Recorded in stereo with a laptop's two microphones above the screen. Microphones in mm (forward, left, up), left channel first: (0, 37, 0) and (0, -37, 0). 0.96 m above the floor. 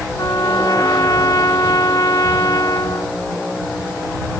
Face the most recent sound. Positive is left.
turn(degrees=55)  # may be behind; listen again after turning